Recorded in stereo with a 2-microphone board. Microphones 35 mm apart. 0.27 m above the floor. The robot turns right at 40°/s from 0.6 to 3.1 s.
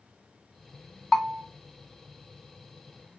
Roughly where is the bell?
Centre.